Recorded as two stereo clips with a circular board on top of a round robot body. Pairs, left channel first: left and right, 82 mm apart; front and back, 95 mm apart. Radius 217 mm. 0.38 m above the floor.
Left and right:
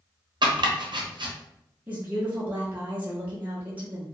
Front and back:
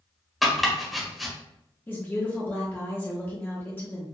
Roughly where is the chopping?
Right.